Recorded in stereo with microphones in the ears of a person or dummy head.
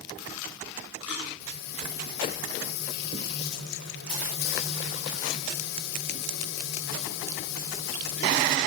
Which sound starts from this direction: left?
Frying, at 1.4 s.